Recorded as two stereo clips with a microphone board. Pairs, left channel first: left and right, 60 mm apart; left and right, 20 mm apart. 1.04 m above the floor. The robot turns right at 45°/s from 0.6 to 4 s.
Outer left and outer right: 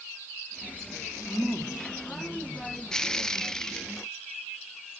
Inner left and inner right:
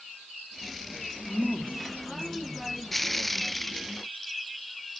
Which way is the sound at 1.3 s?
175° left.